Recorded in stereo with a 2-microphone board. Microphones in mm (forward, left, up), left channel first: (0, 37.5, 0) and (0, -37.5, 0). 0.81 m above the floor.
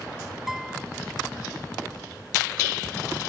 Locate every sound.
0.5 s a guitar: 5° right (ahead or behind)